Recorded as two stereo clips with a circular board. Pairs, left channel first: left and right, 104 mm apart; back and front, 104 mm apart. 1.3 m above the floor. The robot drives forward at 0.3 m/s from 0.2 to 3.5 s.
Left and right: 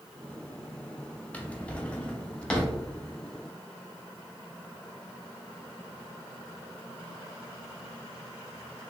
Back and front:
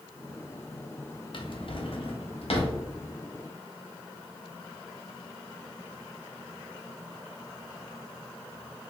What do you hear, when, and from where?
1.3 s a drawer: 165° left, 0.7 m; by 2.8 s 170° left, 1.1 m